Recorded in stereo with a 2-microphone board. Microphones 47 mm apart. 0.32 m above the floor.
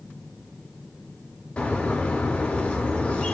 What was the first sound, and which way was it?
A bird, 25° left (ahead or behind).